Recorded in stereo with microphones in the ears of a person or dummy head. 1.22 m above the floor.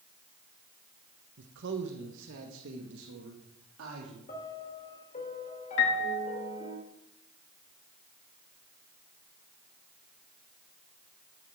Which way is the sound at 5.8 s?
65° left (ahead or behind).